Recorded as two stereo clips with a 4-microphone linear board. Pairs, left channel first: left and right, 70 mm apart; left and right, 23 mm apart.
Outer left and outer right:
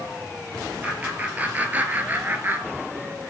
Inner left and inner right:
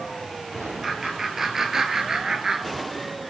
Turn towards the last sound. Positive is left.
turn(degrees=-30)  # may be behind; listen again after turning